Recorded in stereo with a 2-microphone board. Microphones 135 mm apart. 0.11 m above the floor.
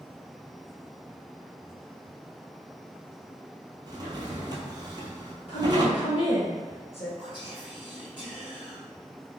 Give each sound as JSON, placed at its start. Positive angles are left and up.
{"t": 3.9, "sound": "a drawer", "side_deg": -30, "distance_m": 0.7}
{"t": 5.5, "sound": "a woman speaking", "side_deg": 50, "distance_m": 1.6}
{"t": 7.2, "sound": "whispering", "side_deg": 40, "distance_m": 1.5}